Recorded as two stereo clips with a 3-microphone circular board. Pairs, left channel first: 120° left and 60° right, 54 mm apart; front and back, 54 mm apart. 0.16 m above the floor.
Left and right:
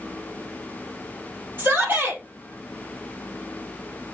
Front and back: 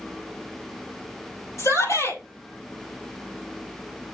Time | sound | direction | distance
1.6 | a shout | 10° right | 4.5 m